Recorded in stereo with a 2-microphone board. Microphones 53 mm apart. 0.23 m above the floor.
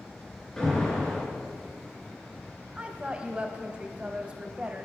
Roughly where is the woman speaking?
Centre.